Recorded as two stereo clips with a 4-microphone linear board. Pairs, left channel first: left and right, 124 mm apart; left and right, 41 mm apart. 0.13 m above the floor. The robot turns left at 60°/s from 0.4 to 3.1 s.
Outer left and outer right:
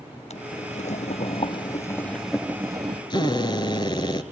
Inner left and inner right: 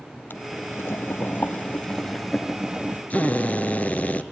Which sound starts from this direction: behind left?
Boiling, at 0.3 s.